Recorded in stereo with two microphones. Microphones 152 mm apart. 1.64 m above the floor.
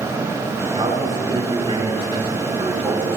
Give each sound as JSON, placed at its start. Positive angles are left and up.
{"t": 0.8, "sound": "a man speaking", "side_deg": -35, "distance_m": 4.0}